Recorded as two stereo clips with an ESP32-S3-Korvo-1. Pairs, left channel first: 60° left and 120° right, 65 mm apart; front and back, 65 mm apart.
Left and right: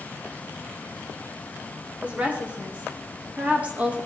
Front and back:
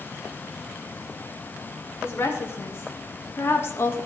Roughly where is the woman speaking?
Ahead right.